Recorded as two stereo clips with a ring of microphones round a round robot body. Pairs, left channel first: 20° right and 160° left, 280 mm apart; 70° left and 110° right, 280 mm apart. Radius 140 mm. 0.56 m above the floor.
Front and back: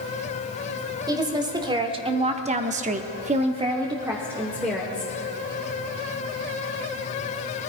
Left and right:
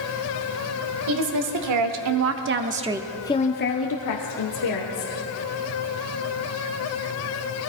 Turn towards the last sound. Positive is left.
turn(degrees=70)